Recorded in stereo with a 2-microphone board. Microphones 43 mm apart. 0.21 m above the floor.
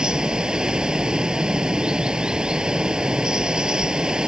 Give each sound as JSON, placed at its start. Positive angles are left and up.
{"t": 0.0, "sound": "running water", "side_deg": -15}